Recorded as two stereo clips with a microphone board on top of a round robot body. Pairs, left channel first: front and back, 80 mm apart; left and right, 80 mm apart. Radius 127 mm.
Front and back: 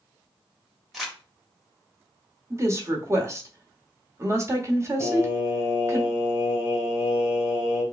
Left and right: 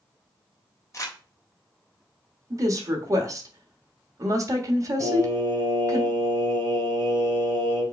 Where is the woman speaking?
130° right, 1.4 m.